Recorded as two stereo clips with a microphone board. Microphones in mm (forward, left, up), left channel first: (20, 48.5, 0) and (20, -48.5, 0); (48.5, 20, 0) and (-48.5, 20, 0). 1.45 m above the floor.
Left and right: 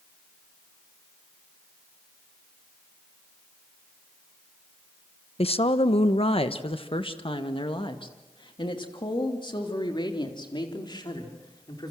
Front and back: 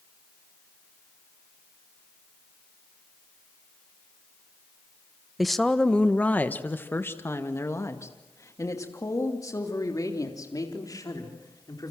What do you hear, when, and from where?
5.4 s a woman speaking: 90° left, 1.0 m; by 11.9 s 50° left, 4.5 m